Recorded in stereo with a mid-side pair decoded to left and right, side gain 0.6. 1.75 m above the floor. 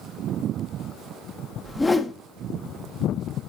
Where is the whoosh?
15° left, 1.0 m.